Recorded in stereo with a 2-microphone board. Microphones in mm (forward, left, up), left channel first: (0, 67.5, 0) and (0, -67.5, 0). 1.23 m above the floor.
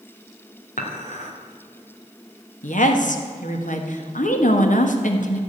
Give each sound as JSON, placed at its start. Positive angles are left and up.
{"t": 0.8, "sound": "dishes clattering", "side_deg": 65, "distance_m": 2.5}
{"t": 2.6, "sound": "a woman speaking", "side_deg": 70, "distance_m": 1.6}